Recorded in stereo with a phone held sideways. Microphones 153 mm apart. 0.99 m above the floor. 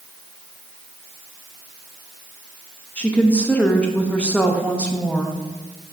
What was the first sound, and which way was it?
A woman speaking, 10° left (ahead or behind).